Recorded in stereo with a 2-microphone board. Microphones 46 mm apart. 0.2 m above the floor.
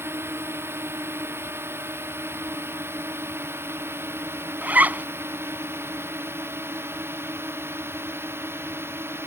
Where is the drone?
65° right (ahead or behind); by 9.3 s 60° right (ahead or behind).